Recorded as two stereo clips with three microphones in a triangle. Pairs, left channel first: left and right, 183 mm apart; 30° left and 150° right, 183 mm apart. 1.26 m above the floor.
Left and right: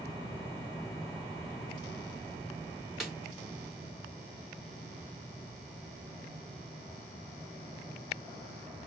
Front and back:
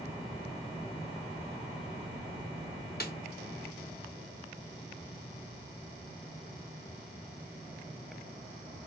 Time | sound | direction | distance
3.0 | a snare drum | straight ahead | 0.9 m